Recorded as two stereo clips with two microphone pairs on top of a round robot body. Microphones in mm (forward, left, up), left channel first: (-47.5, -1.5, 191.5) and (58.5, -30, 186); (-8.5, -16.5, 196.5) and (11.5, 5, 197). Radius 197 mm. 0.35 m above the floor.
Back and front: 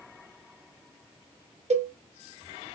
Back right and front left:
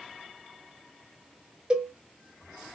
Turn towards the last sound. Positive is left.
turn(degrees=-10)